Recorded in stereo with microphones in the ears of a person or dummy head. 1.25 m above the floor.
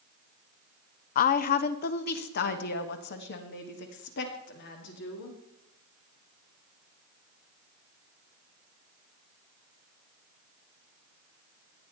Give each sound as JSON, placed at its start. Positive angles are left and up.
{"t": 1.1, "sound": "a woman speaking", "side_deg": 50, "distance_m": 0.5}